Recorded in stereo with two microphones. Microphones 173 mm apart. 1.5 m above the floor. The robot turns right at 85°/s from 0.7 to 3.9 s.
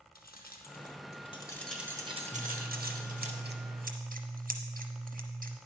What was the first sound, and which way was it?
Keys jangling, 60° left (ahead or behind).